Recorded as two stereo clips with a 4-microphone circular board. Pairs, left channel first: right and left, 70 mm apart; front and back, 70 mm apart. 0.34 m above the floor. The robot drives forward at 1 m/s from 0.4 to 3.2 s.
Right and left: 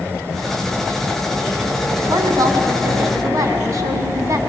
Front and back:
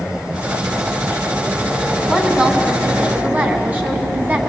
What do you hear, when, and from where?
2.1 s a woman speaking: 95° left, 3 m; by 4.4 s 115° left, 3.5 m